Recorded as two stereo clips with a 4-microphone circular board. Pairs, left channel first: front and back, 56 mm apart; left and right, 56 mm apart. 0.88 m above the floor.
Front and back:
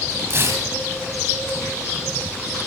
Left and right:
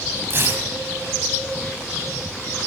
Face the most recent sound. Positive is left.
turn(degrees=-140)